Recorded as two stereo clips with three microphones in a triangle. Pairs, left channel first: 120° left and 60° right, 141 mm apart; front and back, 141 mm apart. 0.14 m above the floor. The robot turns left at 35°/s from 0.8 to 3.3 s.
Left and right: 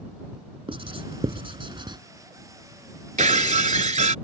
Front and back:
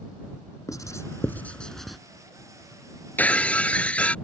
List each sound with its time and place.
0.7 s writing: 50° right; by 2.0 s 90° right
3.2 s breaking glass: 75° right; by 4.2 s 80° right